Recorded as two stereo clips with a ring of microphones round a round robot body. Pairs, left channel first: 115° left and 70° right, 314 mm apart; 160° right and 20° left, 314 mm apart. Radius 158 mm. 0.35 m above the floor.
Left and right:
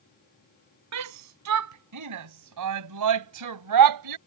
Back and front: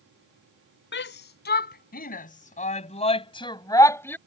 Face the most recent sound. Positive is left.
turn(degrees=-75)